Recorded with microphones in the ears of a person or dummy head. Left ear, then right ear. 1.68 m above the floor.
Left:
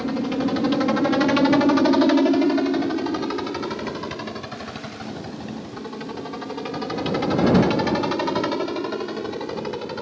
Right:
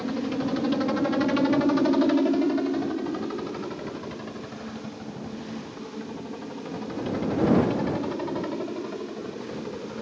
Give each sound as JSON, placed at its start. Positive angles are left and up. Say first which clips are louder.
{"t": 0.0, "sound": "a helicopter", "louder": "left 4 dB", "side_deg": 5}